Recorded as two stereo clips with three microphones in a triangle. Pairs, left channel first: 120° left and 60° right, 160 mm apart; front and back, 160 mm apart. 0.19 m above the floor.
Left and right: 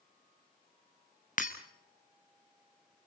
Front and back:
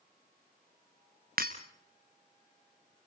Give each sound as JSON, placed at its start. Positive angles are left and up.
{"t": 1.4, "sound": "breaking glass", "azimuth_deg": 155, "distance_m": 2.0}